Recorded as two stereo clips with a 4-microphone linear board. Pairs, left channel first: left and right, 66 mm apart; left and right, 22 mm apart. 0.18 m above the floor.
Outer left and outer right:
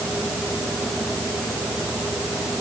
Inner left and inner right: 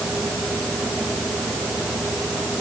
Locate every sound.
Only background noise.